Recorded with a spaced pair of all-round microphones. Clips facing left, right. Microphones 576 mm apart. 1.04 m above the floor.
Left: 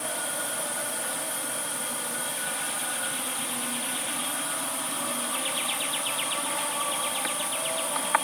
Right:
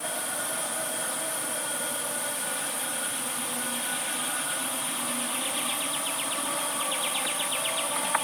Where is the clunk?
No clunk in this recording.